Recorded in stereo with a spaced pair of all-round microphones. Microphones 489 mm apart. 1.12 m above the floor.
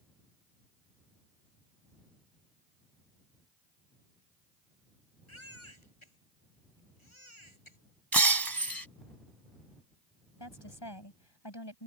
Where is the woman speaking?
60° left (ahead or behind).